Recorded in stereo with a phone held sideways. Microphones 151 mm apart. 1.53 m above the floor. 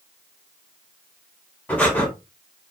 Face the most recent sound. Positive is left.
turn(degrees=10)  # may be behind; listen again after turning